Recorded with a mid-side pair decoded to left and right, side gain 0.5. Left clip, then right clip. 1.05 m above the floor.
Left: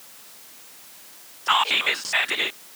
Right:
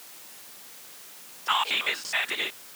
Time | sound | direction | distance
1.5 | whispering | 30° left | ?